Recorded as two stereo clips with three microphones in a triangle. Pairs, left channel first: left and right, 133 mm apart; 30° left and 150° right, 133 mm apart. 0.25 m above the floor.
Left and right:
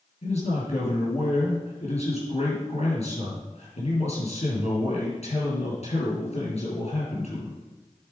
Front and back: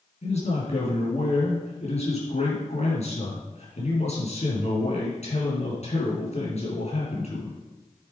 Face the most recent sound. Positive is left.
turn(degrees=60)